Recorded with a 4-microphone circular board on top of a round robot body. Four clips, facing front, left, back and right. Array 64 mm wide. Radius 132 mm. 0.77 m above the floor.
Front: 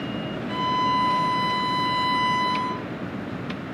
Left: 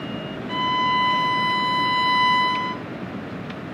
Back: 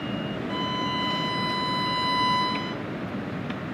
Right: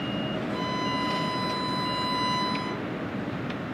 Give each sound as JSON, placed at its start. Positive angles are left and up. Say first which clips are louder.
{"t": 0.5, "sound": "a violin", "louder": "left 12 dB, front 8 dB", "azimuth_deg": 90, "distance_m": 0.7}